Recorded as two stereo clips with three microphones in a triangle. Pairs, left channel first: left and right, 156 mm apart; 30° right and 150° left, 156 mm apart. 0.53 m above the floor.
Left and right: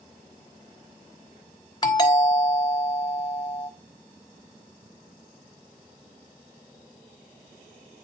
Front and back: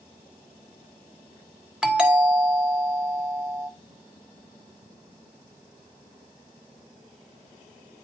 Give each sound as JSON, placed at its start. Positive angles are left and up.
{"t": 1.8, "sound": "a doorbell", "azimuth_deg": 75, "distance_m": 1.7}